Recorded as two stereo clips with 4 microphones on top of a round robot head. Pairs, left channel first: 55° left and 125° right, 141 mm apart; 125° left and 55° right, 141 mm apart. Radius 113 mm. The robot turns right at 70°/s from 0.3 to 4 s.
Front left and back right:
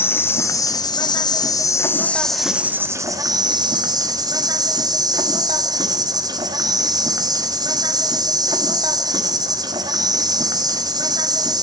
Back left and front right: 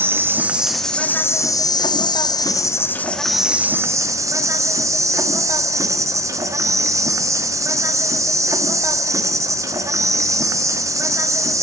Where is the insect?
Straight ahead, 1.1 m; by 11.6 s 100° right, 1.1 m.